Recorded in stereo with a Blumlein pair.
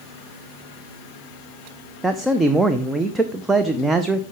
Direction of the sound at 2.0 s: 10° right.